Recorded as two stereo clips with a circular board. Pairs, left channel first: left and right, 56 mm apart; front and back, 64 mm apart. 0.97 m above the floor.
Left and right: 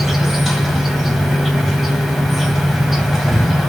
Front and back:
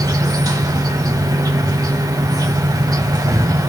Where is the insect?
175° right, 1.7 m.